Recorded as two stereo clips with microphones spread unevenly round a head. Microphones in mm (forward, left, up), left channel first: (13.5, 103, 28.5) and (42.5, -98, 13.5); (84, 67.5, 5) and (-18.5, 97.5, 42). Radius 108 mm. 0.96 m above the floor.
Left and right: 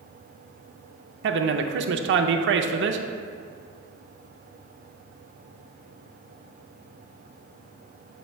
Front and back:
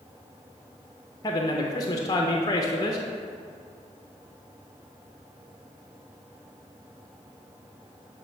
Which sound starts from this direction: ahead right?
A man speaking, at 1.2 s.